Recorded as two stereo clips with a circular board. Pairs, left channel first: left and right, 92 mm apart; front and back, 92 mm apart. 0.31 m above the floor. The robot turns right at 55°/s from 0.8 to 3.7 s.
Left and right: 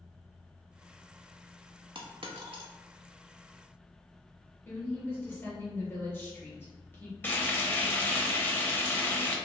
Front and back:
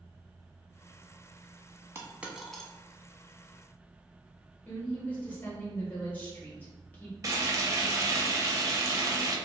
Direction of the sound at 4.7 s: 50° left.